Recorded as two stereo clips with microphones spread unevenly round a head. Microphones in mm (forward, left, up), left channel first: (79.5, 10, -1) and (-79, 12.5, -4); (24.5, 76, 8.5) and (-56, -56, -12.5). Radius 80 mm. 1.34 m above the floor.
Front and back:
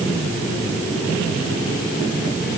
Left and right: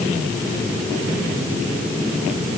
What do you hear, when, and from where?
Only background noise.